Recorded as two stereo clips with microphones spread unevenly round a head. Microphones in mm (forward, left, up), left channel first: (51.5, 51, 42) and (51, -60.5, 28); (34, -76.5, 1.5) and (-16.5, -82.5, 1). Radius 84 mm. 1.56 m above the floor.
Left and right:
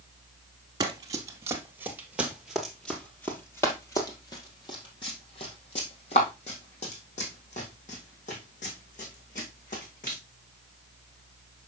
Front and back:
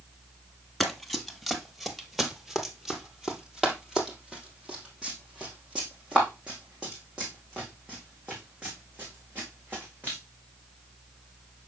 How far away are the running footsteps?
About 1.7 m.